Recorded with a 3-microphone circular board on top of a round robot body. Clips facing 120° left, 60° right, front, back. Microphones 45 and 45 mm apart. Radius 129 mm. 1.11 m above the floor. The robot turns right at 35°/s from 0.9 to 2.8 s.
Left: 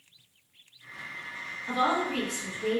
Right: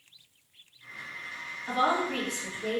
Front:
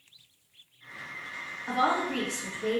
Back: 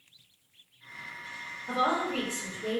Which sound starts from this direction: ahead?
A woman speaking, at 1.7 s.